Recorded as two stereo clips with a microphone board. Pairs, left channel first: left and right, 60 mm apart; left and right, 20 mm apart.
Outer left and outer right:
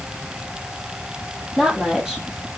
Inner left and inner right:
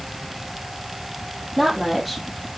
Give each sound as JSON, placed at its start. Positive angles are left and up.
{"t": 1.6, "sound": "a woman speaking", "side_deg": -10, "distance_m": 5.0}